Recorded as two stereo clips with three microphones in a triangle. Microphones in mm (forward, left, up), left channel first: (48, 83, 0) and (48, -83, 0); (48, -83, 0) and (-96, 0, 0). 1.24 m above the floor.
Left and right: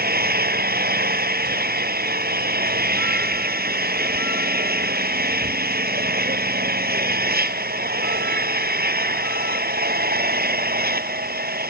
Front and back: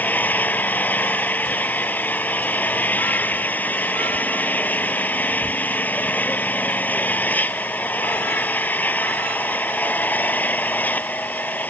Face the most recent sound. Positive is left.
turn(degrees=-110)